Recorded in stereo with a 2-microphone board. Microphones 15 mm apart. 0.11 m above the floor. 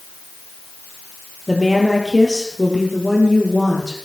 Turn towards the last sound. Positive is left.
turn(degrees=5)  # may be behind; listen again after turning